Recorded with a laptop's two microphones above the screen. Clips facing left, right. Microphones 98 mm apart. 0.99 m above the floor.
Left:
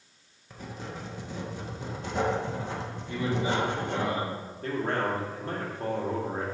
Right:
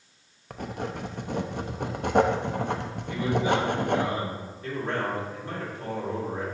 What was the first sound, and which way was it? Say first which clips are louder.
Writing: right 6 dB; 60° right (ahead or behind).